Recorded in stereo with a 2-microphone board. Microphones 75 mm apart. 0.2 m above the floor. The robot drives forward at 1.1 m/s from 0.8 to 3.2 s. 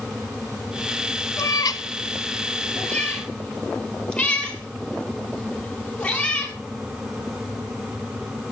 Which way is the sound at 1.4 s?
45° left (ahead or behind).